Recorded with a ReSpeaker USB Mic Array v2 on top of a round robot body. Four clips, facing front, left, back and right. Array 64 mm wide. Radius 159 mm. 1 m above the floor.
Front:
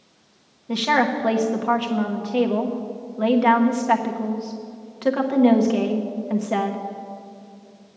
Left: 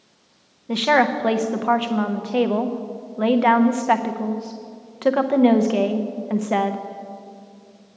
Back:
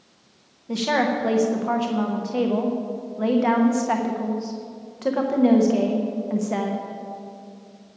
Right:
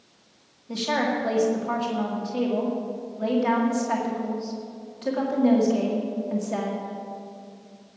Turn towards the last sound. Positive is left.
turn(degrees=80)